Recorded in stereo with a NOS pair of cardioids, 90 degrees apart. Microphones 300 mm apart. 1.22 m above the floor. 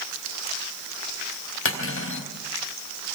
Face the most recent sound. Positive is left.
turn(degrees=45)